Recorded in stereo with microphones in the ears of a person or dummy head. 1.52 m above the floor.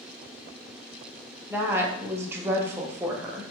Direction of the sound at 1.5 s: 15° right (ahead or behind).